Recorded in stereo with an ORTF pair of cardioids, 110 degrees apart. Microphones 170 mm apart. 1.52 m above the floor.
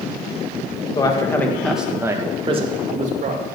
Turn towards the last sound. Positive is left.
turn(degrees=-55)